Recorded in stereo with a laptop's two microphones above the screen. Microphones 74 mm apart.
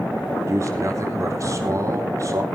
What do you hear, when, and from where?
0.5 s a man speaking: 45° right (ahead or behind), 4 m